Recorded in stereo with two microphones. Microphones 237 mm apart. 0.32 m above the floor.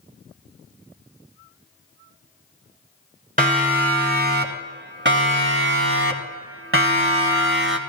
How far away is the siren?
About 4 m.